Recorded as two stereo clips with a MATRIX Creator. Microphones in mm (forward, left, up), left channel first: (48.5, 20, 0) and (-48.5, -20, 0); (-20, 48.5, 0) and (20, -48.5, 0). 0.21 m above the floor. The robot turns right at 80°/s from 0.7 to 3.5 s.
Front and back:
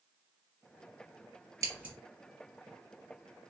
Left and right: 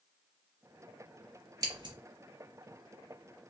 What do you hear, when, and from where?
1.6 s scissors: 110° right, 1.6 m; by 1.9 s 85° right, 1.6 m